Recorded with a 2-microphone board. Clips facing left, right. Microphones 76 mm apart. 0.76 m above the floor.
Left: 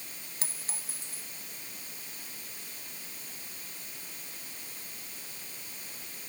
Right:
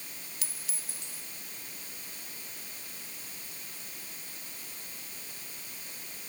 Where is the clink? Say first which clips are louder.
Left 2 dB; 40° left (ahead or behind).